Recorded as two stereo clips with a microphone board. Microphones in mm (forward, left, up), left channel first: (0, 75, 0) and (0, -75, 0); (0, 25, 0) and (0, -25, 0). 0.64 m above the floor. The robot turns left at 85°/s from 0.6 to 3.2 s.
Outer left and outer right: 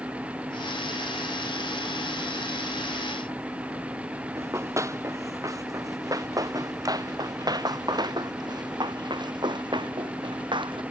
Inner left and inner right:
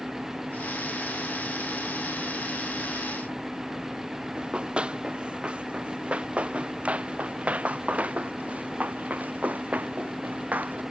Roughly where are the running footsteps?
Centre.